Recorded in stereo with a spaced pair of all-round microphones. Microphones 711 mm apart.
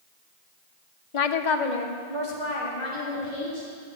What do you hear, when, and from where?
1.1 s a woman speaking: 45° left (ahead or behind), 0.6 m; by 3.7 s 65° left (ahead or behind), 3.5 m